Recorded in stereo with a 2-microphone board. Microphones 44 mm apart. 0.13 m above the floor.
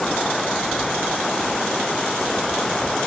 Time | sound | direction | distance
0.0 | running water | 10° left (ahead or behind) | ?